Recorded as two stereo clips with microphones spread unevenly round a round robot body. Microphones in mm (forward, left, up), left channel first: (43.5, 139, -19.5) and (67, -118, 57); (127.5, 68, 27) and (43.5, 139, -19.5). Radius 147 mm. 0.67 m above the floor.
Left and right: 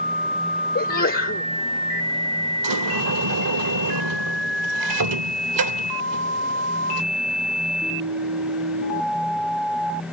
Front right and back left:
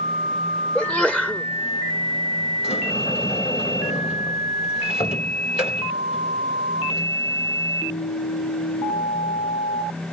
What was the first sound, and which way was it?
A sneeze, 50° left.